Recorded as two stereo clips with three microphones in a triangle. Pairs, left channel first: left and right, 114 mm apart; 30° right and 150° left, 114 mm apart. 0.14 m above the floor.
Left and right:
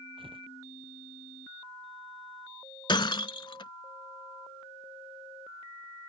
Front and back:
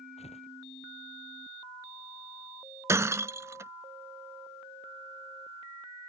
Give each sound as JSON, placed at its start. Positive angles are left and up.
{"t": 0.2, "sound": "tearing paper", "azimuth_deg": -50}
{"t": 2.9, "sound": "breaking glass", "azimuth_deg": 100}